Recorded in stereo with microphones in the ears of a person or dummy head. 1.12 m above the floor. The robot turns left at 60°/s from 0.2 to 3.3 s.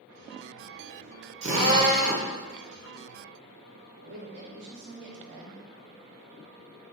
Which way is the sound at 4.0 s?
65° right (ahead or behind).